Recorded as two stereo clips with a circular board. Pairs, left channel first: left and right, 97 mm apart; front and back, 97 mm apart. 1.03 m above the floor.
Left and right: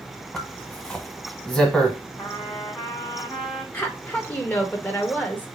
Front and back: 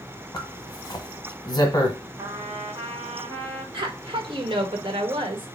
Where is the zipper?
5° left, 1.2 m.